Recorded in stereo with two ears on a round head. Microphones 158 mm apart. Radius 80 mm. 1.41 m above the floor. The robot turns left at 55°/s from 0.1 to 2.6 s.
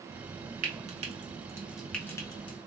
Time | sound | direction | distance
0.6 | frying | 50° right (ahead or behind) | 0.8 m